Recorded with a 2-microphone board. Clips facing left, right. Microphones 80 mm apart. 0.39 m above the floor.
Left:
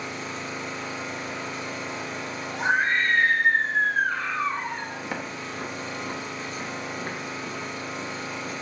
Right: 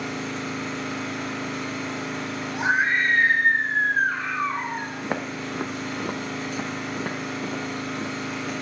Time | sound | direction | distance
0.0 | an engine running | 60° right (ahead or behind) | 2.5 m
2.5 | a scream | 15° right (ahead or behind) | 1.5 m
5.0 | footsteps | 30° right (ahead or behind) | 1.1 m